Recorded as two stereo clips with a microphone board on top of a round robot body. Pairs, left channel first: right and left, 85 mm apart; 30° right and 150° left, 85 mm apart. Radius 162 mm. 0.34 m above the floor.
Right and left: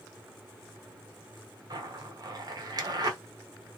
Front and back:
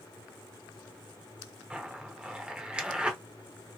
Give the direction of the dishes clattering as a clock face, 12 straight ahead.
I don't hear dishes clattering.